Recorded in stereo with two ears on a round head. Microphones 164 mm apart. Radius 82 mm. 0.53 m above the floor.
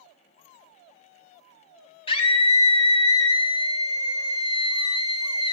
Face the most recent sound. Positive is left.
turn(degrees=30)  # may be behind; listen again after turning